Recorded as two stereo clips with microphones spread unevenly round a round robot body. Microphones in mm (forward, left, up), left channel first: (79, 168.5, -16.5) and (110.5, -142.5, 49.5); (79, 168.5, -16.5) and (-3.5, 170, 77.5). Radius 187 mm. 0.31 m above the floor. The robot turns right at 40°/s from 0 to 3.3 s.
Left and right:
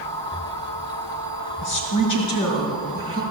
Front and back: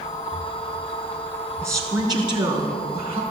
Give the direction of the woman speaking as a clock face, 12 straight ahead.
9 o'clock.